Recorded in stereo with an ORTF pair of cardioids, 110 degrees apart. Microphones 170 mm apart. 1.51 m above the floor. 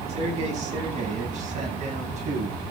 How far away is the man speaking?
About 9.5 m.